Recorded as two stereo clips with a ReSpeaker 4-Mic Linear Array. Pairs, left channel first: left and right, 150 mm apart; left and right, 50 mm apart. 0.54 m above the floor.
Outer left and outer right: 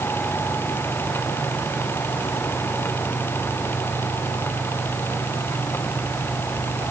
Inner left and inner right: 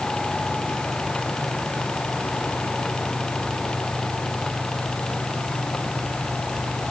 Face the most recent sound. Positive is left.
No sound to turn to.